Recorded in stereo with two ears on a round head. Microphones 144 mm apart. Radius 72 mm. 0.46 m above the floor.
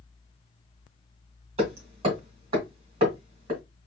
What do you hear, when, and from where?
1.6 s hammering: 35° right (ahead or behind), 2.5 m